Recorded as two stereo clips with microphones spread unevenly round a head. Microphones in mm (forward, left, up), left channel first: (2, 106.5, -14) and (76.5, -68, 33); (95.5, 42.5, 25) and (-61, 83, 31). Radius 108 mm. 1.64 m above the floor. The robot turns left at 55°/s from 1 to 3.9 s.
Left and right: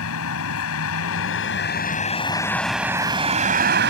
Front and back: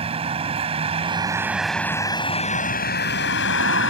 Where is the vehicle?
115° left; by 3.9 s 45° right.